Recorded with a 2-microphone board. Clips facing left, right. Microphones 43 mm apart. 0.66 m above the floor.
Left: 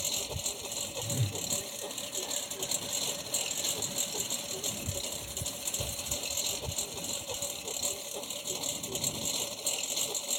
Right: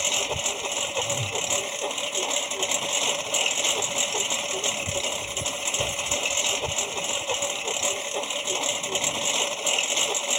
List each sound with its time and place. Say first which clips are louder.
0.0 s a lawn mower: right 11 dB; 60° right (ahead or behind)
1.0 s a whoosh: right 9 dB; 35° left (ahead or behind)